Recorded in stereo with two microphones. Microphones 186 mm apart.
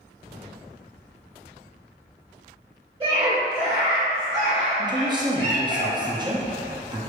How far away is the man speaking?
About 0.8 m.